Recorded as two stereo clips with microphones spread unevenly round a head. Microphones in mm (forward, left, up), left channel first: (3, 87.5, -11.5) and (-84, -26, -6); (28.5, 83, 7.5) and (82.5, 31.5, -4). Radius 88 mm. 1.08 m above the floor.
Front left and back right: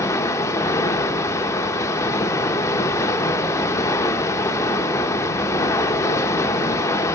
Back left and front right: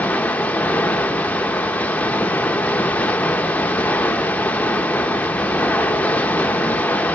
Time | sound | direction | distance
0.0 | running water | 110° left | 0.7 m